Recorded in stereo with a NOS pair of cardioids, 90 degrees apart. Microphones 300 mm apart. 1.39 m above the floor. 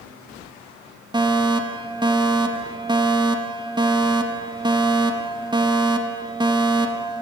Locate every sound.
1.1 s a fire alarm: 15° right, 4 m